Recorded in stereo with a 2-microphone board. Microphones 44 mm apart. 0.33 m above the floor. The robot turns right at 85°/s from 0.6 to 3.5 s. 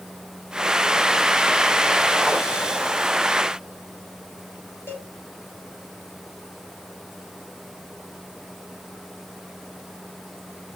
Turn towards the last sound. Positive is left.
turn(degrees=60)  # may be behind; listen again after turning